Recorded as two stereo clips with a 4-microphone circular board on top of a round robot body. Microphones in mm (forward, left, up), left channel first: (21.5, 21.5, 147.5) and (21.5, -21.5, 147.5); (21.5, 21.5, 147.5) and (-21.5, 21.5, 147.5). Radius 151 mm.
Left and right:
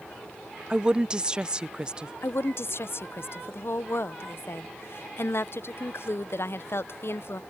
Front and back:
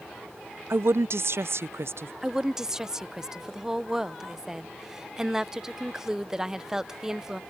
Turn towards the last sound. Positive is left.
turn(degrees=100)